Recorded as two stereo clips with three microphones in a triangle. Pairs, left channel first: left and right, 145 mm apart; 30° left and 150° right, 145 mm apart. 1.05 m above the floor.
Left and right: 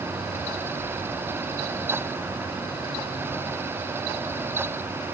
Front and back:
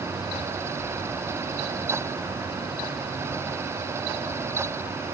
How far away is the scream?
No scream in this recording.